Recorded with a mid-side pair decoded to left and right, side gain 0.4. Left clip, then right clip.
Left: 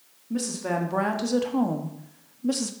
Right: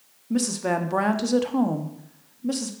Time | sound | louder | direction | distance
0.3 | a woman speaking | right 3 dB | 45° right | 1.7 m